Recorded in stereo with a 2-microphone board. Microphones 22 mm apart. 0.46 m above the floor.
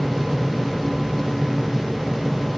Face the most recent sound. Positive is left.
No sound to turn to.